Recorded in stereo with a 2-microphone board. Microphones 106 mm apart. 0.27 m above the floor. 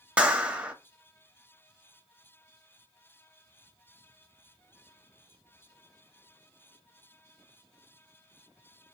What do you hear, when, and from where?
0.2 s a clap: 15° right (ahead or behind), 0.7 m